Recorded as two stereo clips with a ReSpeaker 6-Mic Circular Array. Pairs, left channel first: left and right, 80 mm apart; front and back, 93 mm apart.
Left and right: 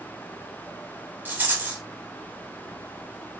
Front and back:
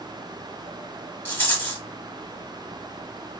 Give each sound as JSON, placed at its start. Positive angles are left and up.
{"t": 1.2, "sound": "a rattle", "azimuth_deg": -50, "distance_m": 1.0}